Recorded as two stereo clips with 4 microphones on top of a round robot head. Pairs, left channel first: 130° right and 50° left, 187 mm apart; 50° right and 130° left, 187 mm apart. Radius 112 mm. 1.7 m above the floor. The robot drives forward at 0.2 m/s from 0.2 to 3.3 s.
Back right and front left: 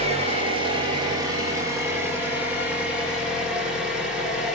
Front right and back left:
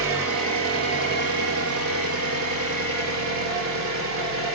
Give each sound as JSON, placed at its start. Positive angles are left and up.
{"t": 0.0, "sound": "an engine running", "azimuth_deg": 115, "distance_m": 1.0}